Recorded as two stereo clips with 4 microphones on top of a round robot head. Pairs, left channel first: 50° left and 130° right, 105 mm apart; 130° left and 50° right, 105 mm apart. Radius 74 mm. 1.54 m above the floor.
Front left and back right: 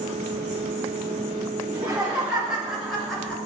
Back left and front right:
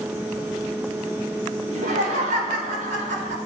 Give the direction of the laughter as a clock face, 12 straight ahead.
2 o'clock.